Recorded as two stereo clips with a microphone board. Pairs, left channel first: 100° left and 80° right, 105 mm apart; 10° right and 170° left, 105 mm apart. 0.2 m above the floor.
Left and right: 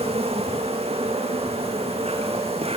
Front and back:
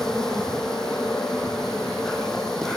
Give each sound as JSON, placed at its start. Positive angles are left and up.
{"t": 0.0, "sound": "an insect", "azimuth_deg": -95, "distance_m": 4.5}